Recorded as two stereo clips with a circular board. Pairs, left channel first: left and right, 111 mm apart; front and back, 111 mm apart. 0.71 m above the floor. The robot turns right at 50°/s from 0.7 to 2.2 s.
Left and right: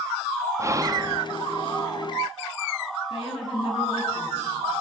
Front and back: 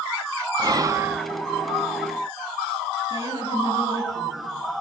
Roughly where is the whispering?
Behind right.